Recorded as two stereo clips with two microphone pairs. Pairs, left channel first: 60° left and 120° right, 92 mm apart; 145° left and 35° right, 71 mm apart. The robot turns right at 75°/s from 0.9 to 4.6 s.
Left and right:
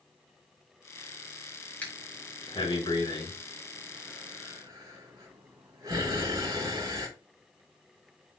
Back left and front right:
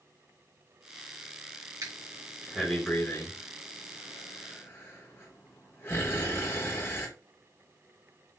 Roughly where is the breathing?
Ahead.